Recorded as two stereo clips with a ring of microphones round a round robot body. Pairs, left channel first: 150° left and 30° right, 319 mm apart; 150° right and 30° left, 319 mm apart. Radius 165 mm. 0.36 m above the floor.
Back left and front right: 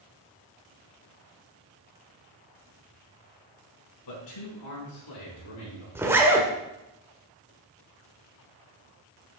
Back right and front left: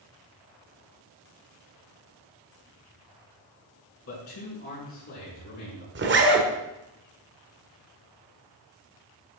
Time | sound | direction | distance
4.1 | a man speaking | 165° left | 4.5 m
6.0 | a zipper | 45° left | 1.5 m